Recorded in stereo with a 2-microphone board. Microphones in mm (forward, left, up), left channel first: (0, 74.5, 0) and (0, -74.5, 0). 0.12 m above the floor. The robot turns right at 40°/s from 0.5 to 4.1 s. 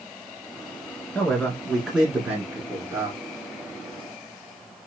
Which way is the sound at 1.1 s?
10° left (ahead or behind).